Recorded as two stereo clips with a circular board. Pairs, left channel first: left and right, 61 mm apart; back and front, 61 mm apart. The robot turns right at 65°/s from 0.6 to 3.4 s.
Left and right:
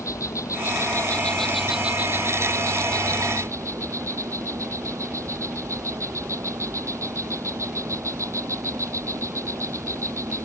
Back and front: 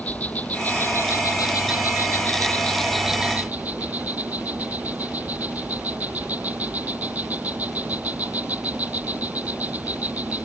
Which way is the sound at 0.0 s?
115° left.